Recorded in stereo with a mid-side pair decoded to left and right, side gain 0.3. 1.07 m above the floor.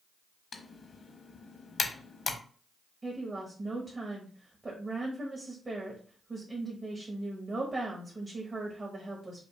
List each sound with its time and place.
0.5 s typing on a keyboard: 60° left, 0.8 m
3.0 s a woman speaking: 45° right, 1.4 m